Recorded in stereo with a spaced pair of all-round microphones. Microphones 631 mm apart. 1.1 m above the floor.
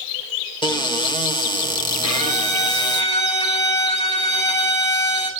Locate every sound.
0.6 s a cupboard door: 5° left (ahead or behind), 1.9 m
2.0 s a violin: 65° right (ahead or behind), 5.5 m